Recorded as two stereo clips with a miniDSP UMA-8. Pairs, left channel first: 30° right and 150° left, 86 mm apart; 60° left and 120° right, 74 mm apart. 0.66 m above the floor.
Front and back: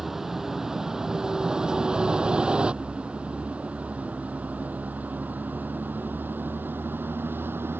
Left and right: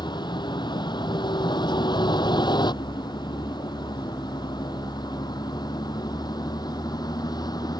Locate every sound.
0.0 s a vehicle: 65° left; by 7.8 s 85° left